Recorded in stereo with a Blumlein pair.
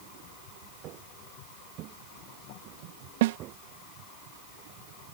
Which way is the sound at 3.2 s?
50° right.